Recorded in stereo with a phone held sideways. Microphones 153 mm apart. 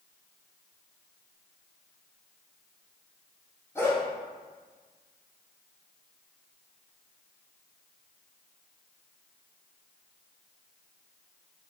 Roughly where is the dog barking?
Centre.